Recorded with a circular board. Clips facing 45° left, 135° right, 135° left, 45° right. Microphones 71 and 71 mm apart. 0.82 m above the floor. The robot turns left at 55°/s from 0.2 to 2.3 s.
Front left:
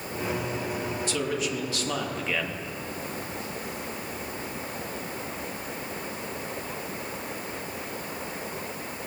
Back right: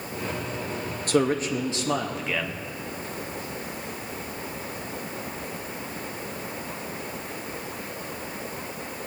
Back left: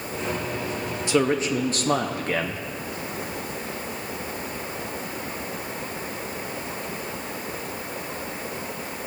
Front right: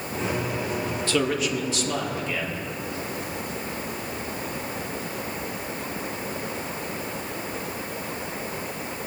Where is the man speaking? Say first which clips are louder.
Back right 9 dB, back left 4 dB; 155° right, 0.8 m; by 2.6 s 135° left, 0.8 m.